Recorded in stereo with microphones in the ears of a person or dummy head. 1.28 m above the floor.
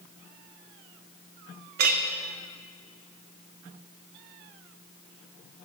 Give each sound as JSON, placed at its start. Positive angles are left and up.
{"t": 1.8, "sound": "a clink", "side_deg": -55, "distance_m": 0.6}